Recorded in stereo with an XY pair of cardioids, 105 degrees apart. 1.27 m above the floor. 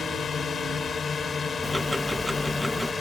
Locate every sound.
0.0 s a drone: 45° left; by 3.0 s 35° left
1.6 s ticking: 5° left